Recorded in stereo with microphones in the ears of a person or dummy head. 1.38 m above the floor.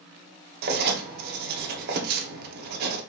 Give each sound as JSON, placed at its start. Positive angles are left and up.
{"t": 0.6, "sound": "writing", "side_deg": -50, "distance_m": 1.0}